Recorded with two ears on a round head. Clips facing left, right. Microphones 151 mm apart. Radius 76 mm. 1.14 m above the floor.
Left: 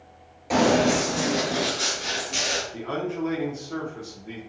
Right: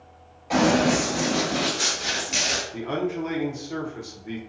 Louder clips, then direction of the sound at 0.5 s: Even; 45° left (ahead or behind).